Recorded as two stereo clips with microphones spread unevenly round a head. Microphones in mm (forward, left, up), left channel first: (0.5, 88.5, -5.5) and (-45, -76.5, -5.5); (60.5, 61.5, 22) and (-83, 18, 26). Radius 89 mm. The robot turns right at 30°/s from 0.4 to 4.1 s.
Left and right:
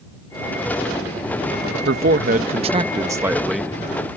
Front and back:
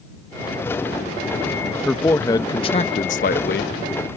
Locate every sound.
1.9 s a man speaking: 70° right; by 4.1 s straight ahead